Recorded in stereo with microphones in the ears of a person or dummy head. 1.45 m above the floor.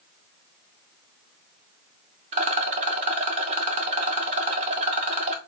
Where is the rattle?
35° right (ahead or behind), 1.0 m.